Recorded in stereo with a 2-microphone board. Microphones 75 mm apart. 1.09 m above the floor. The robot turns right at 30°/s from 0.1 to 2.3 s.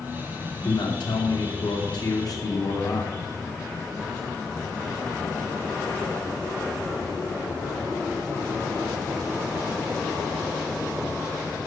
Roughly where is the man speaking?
Left.